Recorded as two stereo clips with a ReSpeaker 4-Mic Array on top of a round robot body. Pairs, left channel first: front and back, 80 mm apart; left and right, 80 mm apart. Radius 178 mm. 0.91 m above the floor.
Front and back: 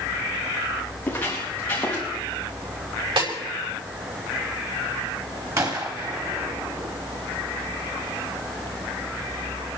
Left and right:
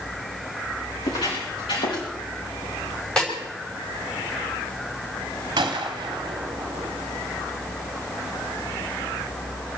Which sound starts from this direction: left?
Footsteps, at 1.0 s.